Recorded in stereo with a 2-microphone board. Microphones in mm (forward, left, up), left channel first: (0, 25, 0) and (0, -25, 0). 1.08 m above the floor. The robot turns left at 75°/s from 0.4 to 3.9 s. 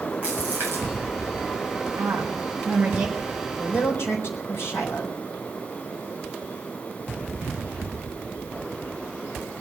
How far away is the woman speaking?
About 4.5 m.